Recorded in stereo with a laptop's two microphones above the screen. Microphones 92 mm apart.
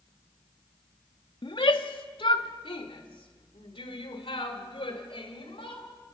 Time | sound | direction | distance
1.4 | a shout | 65° left (ahead or behind) | 1.7 m